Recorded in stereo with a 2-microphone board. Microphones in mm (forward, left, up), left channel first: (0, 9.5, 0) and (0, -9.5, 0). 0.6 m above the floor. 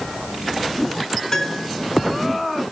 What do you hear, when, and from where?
1.3 s a piano: 25° left (ahead or behind), 3.5 m